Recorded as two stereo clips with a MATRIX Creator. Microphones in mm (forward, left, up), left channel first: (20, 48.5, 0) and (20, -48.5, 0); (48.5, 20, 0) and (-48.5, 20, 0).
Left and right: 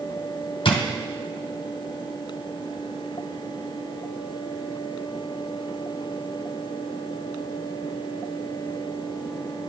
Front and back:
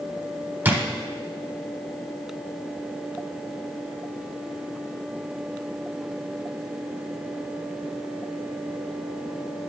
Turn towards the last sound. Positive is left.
turn(degrees=115)